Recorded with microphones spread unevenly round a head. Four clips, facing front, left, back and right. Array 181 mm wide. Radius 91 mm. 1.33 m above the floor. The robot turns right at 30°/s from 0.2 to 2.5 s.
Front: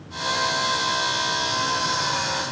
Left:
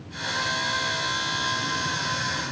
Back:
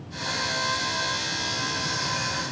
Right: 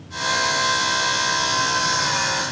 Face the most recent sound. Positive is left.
No sound to turn to.